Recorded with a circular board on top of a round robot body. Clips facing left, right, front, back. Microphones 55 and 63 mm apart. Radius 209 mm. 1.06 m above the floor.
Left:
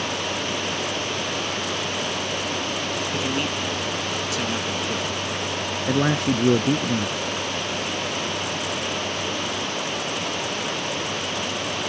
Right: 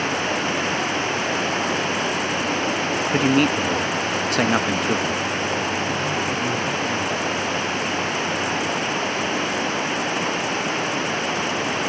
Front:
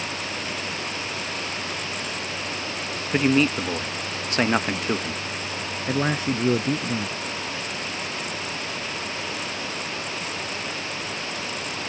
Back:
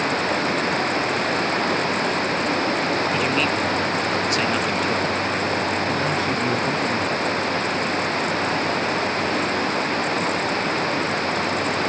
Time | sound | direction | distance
0.0 | running water | 140° right | ?
3.1 | a man speaking | 55° right | ?
5.9 | a man speaking | 70° left | ?